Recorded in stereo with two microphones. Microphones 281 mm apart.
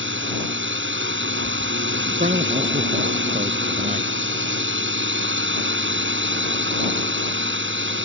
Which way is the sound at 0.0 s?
45° right (ahead or behind).